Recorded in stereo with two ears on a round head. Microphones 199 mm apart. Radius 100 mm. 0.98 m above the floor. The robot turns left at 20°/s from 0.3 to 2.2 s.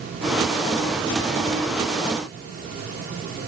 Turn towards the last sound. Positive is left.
No sound to turn to.